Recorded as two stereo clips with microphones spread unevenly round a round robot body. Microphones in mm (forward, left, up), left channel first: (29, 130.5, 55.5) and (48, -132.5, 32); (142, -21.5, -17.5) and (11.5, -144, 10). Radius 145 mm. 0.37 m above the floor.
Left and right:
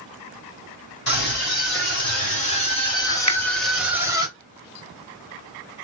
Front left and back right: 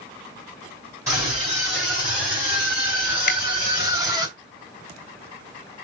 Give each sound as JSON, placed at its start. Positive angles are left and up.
{"t": 1.1, "sound": "a scream", "azimuth_deg": 140, "distance_m": 2.5}
{"t": 3.3, "sound": "a finger snap", "azimuth_deg": 25, "distance_m": 1.4}